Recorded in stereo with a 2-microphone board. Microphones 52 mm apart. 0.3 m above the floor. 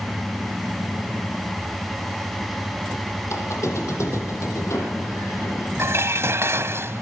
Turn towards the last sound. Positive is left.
turn(degrees=-55)  # may be behind; listen again after turning